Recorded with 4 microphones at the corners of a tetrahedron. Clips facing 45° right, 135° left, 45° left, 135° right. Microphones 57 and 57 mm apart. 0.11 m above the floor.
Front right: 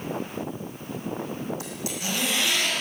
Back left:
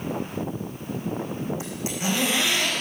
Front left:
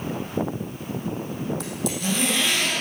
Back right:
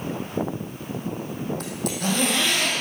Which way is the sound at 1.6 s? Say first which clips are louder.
Back left 3 dB, even; 165° right.